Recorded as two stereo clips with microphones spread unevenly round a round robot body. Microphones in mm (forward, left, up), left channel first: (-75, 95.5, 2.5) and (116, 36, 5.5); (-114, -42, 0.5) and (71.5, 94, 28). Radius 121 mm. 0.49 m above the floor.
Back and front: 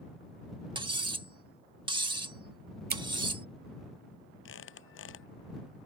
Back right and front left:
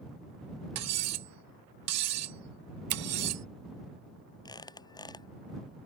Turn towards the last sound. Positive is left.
turn(degrees=140)